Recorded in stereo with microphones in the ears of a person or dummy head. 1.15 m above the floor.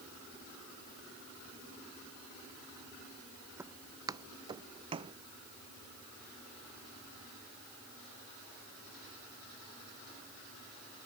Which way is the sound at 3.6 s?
15° right (ahead or behind).